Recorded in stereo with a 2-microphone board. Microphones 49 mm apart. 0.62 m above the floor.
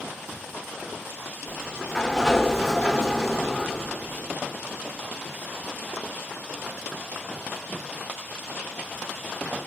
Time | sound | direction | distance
1.5 | a sliding door | 15° left (ahead or behind) | 0.7 m